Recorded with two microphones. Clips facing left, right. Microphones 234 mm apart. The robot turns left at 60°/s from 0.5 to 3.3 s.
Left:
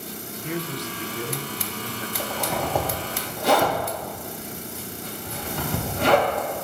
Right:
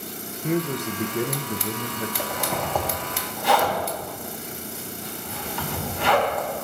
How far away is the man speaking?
About 0.7 m.